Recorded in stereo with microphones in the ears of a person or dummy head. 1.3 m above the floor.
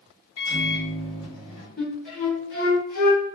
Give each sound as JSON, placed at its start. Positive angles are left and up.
{"t": 0.4, "sound": "a microwave", "side_deg": 80, "distance_m": 1.6}
{"t": 1.8, "sound": "a flute", "side_deg": 45, "distance_m": 1.2}